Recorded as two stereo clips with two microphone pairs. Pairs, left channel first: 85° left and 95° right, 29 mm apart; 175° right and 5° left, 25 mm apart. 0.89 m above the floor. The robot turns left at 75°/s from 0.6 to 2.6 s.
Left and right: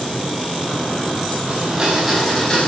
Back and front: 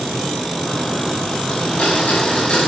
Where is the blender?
135° right, 5 m; by 2.7 s 140° left, 5 m.